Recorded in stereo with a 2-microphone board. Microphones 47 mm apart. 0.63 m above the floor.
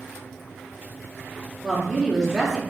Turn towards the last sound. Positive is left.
turn(degrees=-15)  # may be behind; listen again after turning